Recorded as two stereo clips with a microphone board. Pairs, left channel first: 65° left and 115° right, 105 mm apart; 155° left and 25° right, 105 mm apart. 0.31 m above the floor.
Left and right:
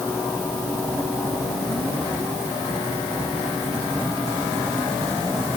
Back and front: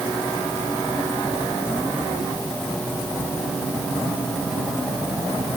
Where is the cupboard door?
I don't hear a cupboard door.